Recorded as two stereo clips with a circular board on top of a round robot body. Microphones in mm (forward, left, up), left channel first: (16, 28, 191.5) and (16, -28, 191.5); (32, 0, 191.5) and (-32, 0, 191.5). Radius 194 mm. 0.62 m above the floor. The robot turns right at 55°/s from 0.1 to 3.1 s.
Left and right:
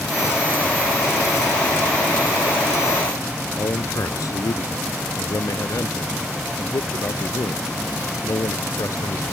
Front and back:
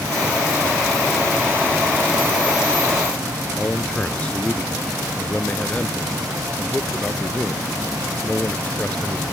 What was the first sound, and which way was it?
A man speaking, 70° left.